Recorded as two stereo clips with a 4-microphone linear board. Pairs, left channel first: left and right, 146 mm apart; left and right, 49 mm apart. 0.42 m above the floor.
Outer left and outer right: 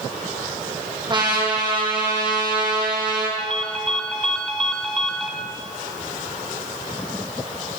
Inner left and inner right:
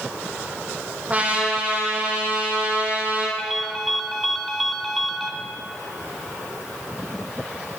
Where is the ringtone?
5° left (ahead or behind), 1.6 m.